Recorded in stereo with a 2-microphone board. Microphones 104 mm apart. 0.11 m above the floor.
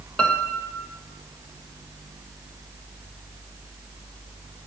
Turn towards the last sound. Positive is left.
turn(degrees=10)  # may be behind; listen again after turning